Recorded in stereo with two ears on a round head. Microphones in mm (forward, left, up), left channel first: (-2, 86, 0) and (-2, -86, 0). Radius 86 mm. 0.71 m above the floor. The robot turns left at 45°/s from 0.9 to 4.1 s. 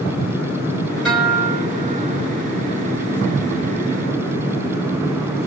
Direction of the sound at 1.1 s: 5° left.